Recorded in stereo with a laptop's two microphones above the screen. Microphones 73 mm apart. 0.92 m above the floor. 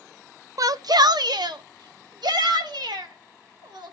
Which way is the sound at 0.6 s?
55° right (ahead or behind).